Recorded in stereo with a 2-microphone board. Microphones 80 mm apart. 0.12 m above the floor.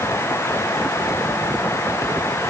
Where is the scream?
No scream in this recording.